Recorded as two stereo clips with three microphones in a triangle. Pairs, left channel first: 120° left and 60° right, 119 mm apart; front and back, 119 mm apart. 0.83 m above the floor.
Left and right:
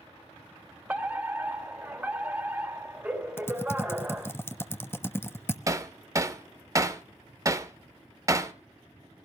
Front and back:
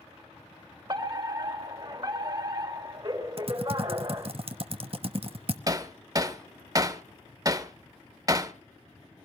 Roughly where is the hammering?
Behind right.